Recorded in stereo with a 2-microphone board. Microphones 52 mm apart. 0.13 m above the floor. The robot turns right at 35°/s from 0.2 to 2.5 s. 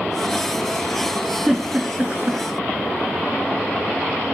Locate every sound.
1.5 s a giggle: centre (ahead or behind), 4.5 m; by 2.4 s 35° right (ahead or behind), 4.5 m